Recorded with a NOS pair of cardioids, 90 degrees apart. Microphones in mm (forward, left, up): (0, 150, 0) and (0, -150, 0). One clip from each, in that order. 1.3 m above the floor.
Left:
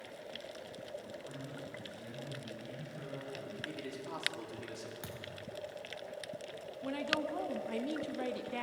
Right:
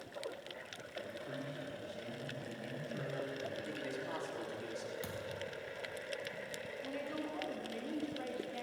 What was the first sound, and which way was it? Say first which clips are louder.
A man speaking: right 2 dB; 25° right.